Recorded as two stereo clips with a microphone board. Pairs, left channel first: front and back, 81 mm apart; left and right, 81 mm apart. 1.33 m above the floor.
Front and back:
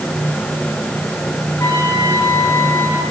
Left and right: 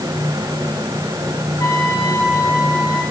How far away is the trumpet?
About 8 m.